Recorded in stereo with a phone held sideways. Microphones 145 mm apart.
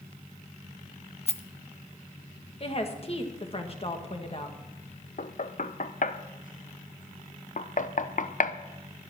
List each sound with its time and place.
1.3 s a rattle: 40° left (ahead or behind), 0.8 m
2.6 s a woman speaking: 40° left (ahead or behind), 1.7 m
5.2 s knocking: 60° left (ahead or behind), 0.6 m